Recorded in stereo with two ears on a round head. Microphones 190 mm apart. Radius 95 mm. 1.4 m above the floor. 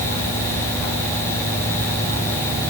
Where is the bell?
I don't hear a bell.